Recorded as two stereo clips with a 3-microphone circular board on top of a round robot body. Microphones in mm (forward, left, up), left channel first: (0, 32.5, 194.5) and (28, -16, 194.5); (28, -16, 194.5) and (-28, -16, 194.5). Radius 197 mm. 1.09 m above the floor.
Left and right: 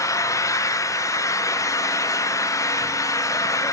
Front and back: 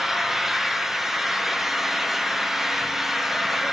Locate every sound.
0.0 s an engine running: 95° left, 1.0 m